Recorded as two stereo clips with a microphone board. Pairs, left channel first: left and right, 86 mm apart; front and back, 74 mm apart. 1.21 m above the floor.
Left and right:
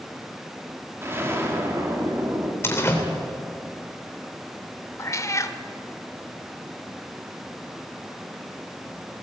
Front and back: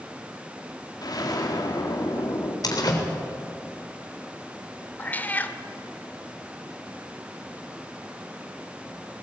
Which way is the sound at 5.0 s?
60° left.